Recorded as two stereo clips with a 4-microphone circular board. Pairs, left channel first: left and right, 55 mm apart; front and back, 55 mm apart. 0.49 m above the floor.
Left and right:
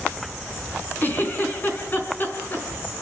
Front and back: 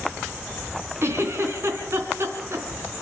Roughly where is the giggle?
Behind left.